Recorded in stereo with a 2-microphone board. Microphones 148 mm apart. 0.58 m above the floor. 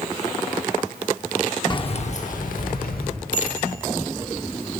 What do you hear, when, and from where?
1.7 s keys jangling: 30° left (ahead or behind), 0.6 m; by 3.1 s 75° left (ahead or behind), 1.5 m
3.3 s a bicycle bell: 75° left (ahead or behind), 3.5 m